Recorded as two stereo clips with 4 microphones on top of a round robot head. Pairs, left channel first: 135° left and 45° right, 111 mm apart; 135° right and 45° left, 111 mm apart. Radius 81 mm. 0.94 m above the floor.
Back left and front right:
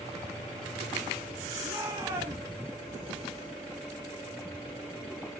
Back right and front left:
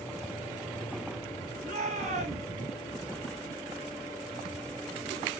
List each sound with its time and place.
1.6 s a shout: 30° left, 7.5 m